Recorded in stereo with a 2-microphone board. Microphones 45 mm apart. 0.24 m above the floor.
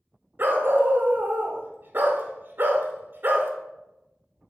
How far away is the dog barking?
About 0.7 m.